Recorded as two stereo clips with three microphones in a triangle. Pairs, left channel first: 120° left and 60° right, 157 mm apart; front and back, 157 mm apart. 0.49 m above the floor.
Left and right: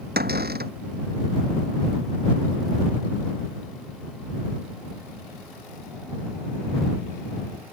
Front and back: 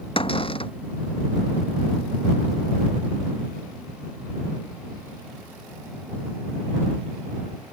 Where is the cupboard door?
55° right.